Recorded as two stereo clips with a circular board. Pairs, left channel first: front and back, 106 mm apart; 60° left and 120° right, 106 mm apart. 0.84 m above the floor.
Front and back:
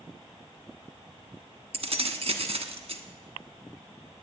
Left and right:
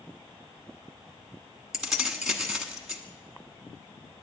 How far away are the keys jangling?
About 1.1 m.